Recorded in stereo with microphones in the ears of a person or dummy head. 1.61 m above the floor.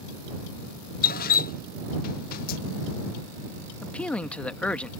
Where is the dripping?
50° left (ahead or behind).